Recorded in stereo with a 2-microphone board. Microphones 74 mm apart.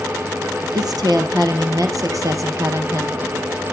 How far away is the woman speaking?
About 3 m.